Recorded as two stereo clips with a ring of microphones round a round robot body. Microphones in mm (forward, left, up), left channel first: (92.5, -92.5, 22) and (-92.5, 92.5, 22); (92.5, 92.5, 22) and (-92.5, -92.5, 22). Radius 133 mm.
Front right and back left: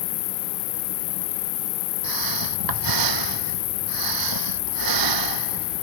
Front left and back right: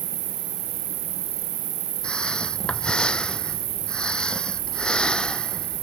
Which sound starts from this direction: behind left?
Breathing, at 2.0 s.